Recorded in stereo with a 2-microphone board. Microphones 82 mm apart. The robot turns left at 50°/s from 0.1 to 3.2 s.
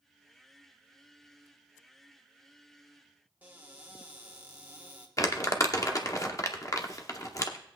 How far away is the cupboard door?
About 1.4 m.